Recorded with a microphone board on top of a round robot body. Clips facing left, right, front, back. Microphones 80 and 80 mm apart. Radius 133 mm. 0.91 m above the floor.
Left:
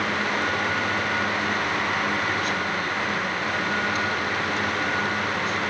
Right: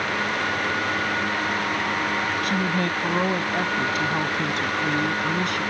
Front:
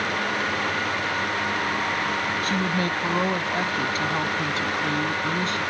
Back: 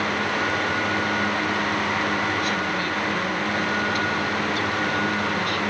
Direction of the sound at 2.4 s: 55° right.